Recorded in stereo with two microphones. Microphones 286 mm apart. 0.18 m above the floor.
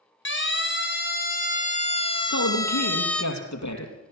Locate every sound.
0.2 s a siren: 45° left (ahead or behind), 2.5 m; by 3.2 s centre (ahead or behind), 2 m
2.2 s a man speaking: 75° left (ahead or behind), 4.5 m